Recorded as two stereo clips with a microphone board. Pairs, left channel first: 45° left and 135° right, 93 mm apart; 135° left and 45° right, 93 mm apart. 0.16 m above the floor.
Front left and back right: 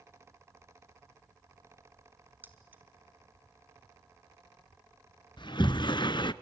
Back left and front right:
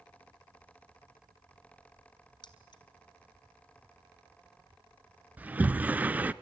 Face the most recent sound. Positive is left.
turn(degrees=25)